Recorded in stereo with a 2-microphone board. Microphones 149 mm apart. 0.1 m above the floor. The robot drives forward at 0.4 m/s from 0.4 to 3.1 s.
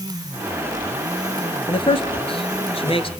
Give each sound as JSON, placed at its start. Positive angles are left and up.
{"t": 1.7, "sound": "a man speaking", "side_deg": 35, "distance_m": 1.6}